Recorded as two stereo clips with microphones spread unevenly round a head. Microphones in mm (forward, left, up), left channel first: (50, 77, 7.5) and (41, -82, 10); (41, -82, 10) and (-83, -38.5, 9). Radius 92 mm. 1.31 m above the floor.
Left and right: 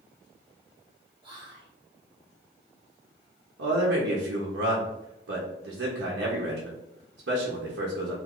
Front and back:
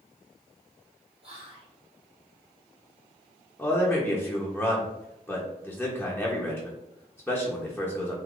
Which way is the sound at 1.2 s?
155° right.